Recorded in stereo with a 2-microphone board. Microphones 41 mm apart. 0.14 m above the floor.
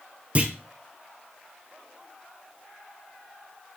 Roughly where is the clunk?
Right.